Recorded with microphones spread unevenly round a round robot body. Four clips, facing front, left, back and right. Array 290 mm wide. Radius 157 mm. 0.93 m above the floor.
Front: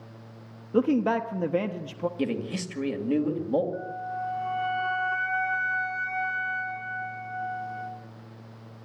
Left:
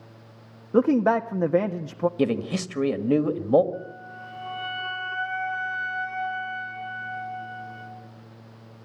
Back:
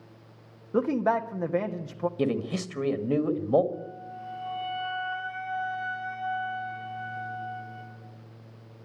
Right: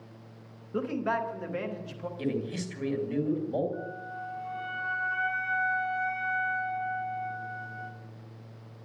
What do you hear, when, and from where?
0.7 s a man speaking: 70° left, 1.2 m
2.2 s a man speaking: 85° left, 2 m
3.7 s a flute: 45° left, 3 m